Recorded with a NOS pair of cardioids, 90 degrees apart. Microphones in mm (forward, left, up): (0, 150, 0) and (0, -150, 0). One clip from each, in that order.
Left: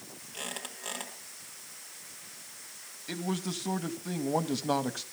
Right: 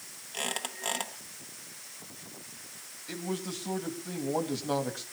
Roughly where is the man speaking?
Ahead left.